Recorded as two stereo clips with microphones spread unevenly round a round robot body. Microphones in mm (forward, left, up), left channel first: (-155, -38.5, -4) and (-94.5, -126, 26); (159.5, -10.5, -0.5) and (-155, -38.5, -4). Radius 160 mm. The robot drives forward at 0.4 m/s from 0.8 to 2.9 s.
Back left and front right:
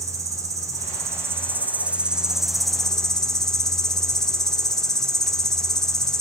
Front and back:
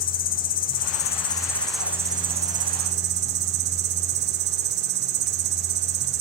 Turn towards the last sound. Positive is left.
turn(degrees=180)